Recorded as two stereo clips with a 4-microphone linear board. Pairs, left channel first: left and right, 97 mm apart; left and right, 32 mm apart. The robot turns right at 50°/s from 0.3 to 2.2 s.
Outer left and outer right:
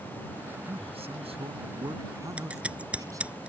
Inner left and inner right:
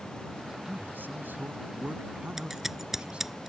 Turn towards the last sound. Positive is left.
turn(degrees=-10)  # may be behind; listen again after turning